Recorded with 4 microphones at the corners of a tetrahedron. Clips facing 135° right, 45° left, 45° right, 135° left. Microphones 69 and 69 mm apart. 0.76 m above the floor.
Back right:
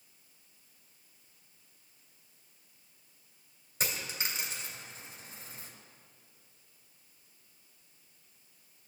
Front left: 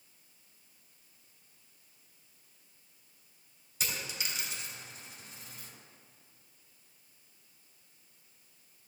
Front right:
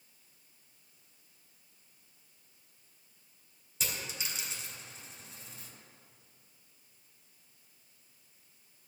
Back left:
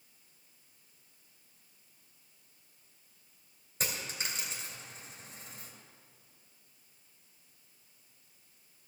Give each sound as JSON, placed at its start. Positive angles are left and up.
{"t": 3.8, "sound": "a dropped coin", "azimuth_deg": 175, "distance_m": 3.0}